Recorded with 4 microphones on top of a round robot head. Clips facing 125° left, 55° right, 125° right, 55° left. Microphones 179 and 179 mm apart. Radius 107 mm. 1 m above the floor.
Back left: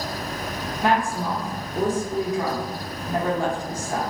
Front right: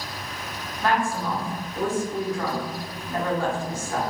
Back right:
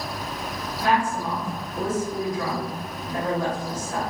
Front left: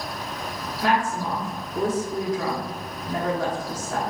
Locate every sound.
0.8 s a woman speaking: 55° left, 1.2 m